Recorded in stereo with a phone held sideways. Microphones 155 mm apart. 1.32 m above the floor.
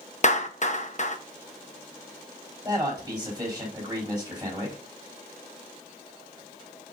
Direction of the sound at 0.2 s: 50° left (ahead or behind).